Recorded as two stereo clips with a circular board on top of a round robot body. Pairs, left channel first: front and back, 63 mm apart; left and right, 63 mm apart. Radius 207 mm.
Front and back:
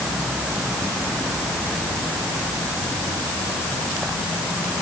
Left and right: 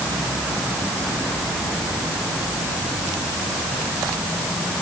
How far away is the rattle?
I don't hear a rattle.